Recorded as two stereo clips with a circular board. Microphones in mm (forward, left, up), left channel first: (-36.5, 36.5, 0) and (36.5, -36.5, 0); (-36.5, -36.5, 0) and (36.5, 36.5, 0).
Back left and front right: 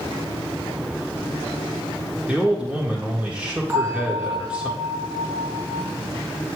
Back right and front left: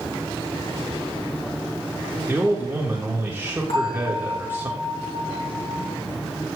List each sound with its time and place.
2.3 s a man speaking: 15° left, 1.2 m
3.7 s a bell: 110° right, 4.5 m